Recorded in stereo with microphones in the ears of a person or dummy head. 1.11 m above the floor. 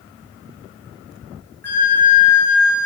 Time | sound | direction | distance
1.6 | a flute | 10° left (ahead or behind) | 1.9 m